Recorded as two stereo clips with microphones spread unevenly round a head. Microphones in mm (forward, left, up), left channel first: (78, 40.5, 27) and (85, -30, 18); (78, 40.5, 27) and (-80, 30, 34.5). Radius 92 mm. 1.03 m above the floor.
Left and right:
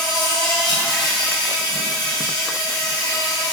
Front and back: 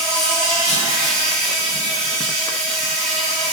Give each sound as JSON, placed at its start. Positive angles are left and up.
{"t": 0.0, "sound": "an insect", "azimuth_deg": 90, "distance_m": 4.5}